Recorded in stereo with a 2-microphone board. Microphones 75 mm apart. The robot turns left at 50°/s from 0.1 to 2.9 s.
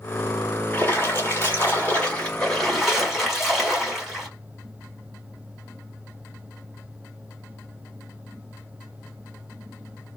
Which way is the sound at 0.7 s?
25° left (ahead or behind).